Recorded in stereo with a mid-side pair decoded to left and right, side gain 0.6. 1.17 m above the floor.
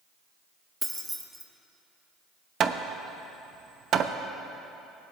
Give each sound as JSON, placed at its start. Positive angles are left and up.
{"t": 0.8, "sound": "keys jangling", "azimuth_deg": -10, "distance_m": 1.1}
{"t": 2.6, "sound": "hammering", "azimuth_deg": -50, "distance_m": 0.7}